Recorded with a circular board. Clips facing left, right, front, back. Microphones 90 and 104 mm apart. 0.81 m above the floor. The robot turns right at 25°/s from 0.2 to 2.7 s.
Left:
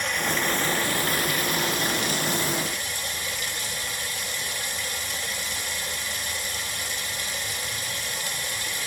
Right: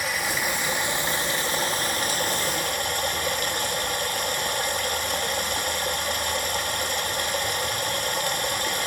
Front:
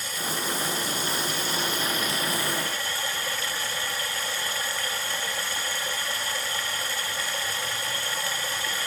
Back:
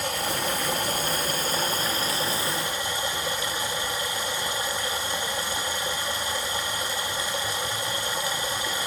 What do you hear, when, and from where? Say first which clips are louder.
0.0 s running water: left 1 dB, back 4 dB; 175° right, 1.3 m; by 8.9 s 115° right, 1.3 m